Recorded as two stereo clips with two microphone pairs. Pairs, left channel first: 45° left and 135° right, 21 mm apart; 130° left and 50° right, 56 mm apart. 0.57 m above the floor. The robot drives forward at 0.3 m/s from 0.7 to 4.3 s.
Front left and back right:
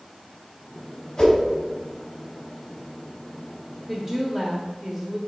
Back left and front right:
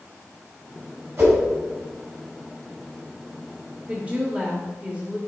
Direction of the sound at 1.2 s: 20° right.